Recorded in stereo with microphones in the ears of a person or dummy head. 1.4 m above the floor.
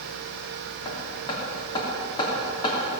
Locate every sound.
0.8 s hammering: 25° left (ahead or behind), 3.5 m